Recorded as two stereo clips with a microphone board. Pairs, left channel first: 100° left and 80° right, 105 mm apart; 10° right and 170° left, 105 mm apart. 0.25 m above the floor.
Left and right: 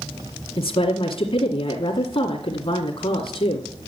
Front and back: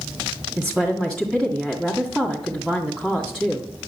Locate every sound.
0.6 s a woman speaking: 75° left, 2.5 m